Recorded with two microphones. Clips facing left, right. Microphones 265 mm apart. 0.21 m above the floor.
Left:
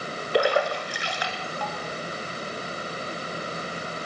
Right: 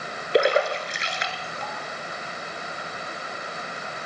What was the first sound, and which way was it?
A splash, 20° right (ahead or behind).